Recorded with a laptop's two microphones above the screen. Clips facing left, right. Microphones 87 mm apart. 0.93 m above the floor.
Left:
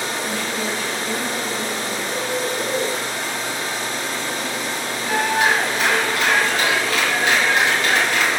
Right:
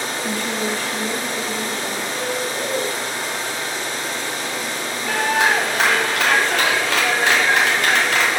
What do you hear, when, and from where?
0.2 s a woman speaking: 40° right (ahead or behind), 1.2 m; by 2.0 s 80° right, 3 m
2.1 s a bird: centre (ahead or behind), 2.5 m
5.1 s a clap: 85° right, 1.8 m